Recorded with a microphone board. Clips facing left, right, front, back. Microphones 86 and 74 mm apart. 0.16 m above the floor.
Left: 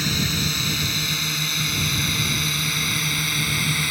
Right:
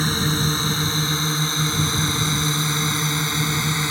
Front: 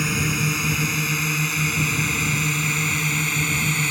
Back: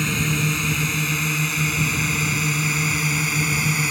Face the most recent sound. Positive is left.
turn(degrees=-105)